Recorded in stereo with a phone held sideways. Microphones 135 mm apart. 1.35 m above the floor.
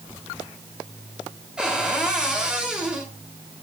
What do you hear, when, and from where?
1.6 s a cupboard door: 5° right (ahead or behind), 2.5 m